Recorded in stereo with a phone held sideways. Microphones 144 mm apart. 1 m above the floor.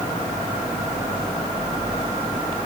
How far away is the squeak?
No squeak in this recording.